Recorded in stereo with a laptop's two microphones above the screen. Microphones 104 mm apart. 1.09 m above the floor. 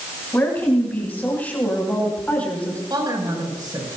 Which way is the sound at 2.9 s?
40° right (ahead or behind).